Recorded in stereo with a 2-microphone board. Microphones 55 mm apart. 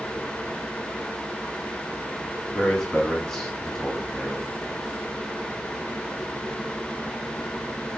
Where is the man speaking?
5° left (ahead or behind), 1.8 m.